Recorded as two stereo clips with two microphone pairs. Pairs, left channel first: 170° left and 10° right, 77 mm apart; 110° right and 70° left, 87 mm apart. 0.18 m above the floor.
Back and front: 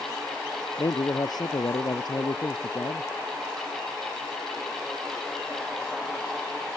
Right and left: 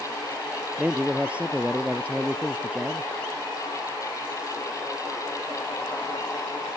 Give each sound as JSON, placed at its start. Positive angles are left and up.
{"t": 0.8, "sound": "a man speaking", "azimuth_deg": 145}